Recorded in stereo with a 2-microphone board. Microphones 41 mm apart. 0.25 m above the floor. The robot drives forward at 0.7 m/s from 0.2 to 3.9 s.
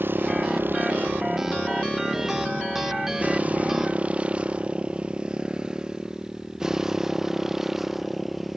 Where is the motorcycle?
60° right (ahead or behind); by 8.6 s centre (ahead or behind).